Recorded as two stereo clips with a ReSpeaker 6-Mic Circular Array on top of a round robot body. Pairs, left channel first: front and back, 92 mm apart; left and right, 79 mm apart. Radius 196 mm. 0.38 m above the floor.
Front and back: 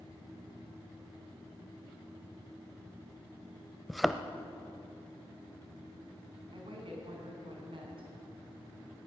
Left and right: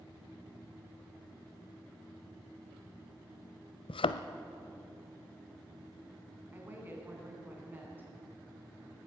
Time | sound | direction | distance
3.9 | a thud | 90° left | 0.6 m
6.5 | a woman speaking | 155° right | 5.5 m